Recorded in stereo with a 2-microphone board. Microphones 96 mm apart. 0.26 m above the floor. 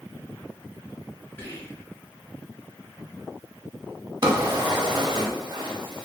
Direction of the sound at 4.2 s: 45° right (ahead or behind).